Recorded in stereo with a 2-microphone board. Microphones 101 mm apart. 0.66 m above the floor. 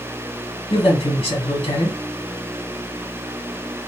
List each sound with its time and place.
0.7 s a man speaking: 65° left (ahead or behind), 1.9 m